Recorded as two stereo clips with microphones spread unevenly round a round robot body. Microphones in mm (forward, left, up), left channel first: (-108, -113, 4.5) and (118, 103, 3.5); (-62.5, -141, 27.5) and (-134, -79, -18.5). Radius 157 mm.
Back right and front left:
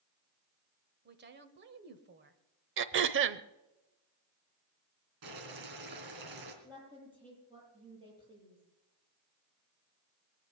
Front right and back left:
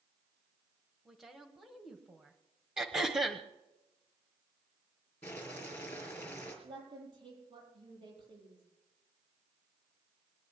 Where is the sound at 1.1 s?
85° left, 1.3 m.